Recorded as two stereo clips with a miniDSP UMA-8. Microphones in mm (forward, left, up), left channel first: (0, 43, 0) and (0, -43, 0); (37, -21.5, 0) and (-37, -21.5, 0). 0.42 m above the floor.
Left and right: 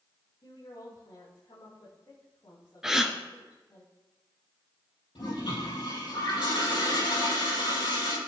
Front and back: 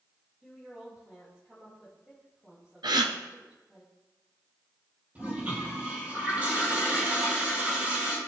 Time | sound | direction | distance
0.4 | a woman speaking | 105° left | 3 m
2.8 | a gasp | 175° right | 1.1 m
5.2 | a toilet flushing | 110° left | 4 m